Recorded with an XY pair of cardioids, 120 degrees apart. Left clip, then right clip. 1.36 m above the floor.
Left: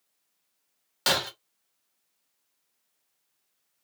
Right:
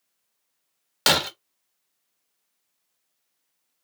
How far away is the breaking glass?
About 1.5 m.